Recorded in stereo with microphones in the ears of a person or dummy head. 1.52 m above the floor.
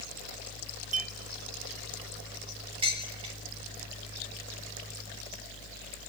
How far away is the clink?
About 1.3 m.